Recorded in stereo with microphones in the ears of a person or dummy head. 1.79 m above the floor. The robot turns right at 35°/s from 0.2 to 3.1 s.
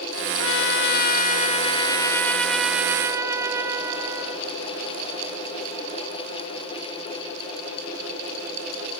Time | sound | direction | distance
0.4 | a trumpet | 105° left | ?